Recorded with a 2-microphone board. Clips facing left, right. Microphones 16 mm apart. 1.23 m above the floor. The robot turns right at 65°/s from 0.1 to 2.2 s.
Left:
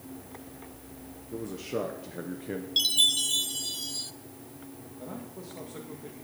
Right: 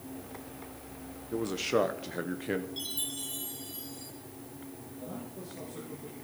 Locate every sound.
1.3 s a man speaking: 95° right, 0.8 m; by 2.7 s 40° right, 0.8 m
2.8 s a chime: 70° left (ahead or behind), 0.6 m
5.0 s a man speaking: 40° left (ahead or behind), 1.8 m